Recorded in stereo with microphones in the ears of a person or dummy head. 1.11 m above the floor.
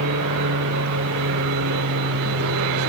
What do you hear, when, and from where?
0.0 s an aircraft: 70° right (ahead or behind)